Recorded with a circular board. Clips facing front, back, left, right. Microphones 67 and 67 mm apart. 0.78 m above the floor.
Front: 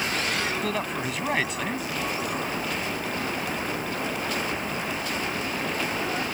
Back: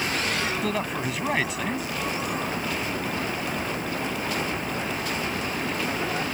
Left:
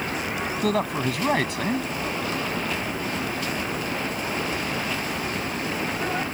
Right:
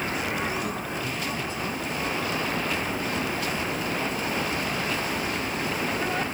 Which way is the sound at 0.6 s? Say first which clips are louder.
Back 1 dB, left 7 dB; 90° left.